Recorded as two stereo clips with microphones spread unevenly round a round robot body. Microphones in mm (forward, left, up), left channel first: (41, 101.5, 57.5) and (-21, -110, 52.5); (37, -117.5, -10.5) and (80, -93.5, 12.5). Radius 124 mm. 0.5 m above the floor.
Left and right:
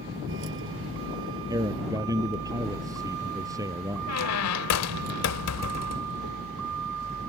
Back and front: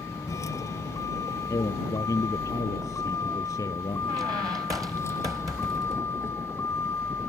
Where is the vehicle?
145° right; by 7.3 s 120° right.